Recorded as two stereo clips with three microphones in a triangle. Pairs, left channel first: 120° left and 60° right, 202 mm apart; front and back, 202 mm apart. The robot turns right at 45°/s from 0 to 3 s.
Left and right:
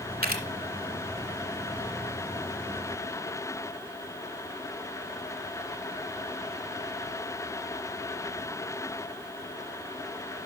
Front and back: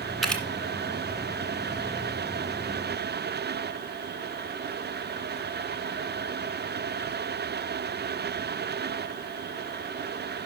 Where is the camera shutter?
90° right, 1.8 m; by 0.4 s 80° right, 1.8 m.